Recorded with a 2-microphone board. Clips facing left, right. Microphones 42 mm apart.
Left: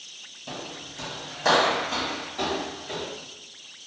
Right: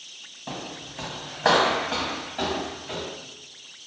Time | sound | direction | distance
0.5 | footsteps | 35° right (ahead or behind) | 1.0 m